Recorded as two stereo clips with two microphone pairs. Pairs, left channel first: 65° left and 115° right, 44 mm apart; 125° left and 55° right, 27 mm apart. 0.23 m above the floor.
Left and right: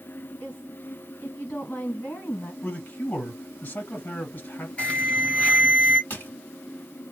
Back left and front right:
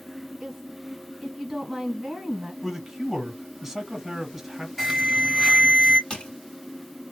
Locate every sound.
0.4 s a woman speaking: 30° left, 1.7 m
2.6 s a man speaking: 35° left, 1.7 m
4.8 s an alarm: 40° left, 2.5 m
6.1 s crushing: 85° left, 1.9 m